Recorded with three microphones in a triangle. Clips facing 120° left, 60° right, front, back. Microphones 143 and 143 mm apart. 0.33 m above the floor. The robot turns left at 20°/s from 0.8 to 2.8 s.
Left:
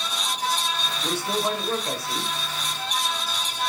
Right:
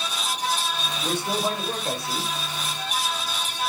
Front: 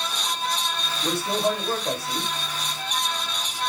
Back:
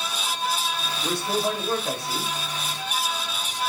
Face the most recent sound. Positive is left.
turn(degrees=-90)